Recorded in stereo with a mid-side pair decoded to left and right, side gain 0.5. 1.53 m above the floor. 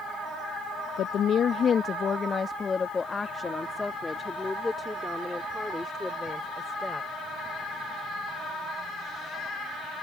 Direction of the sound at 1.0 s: 65° left.